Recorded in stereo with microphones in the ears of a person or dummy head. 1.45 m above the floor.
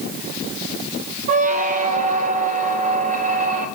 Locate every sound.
1.3 s a squeak: 50° right (ahead or behind), 0.7 m